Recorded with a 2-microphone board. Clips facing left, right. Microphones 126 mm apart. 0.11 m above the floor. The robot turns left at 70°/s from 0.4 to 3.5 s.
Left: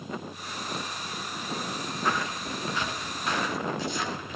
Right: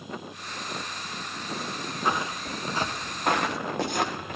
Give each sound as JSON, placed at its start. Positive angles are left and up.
{"t": 2.0, "sound": "footsteps", "side_deg": -20, "distance_m": 1.3}